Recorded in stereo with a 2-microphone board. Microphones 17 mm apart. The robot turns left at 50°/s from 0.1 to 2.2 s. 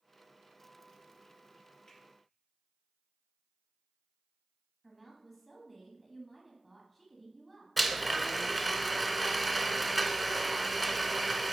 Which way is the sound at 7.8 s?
Centre (ahead or behind).